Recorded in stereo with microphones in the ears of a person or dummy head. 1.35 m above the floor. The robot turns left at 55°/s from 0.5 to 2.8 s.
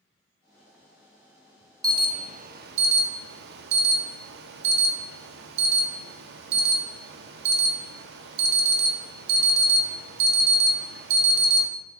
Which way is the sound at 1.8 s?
25° right.